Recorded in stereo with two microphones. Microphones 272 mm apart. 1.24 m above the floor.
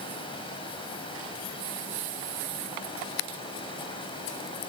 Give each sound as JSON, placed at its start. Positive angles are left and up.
{"t": 0.0, "sound": "running water", "side_deg": 20, "distance_m": 5.5}